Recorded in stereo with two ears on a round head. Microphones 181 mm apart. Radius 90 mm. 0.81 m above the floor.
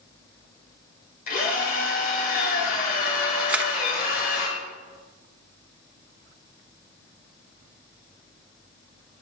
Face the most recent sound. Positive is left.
turn(degrees=-5)  # may be behind; listen again after turning